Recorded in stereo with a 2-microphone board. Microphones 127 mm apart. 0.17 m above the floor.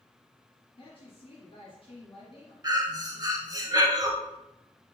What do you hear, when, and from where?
0.8 s a woman speaking: 45° left (ahead or behind), 1.5 m
2.6 s breathing: 30° right (ahead or behind), 0.7 m